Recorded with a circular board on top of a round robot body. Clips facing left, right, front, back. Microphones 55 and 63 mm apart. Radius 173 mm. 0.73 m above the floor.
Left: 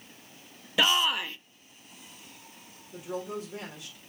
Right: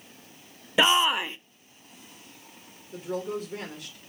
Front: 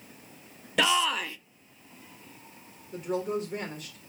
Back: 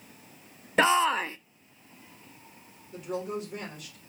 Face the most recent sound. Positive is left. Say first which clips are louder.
# right 4 dB, front 3 dB
turn(degrees=-55)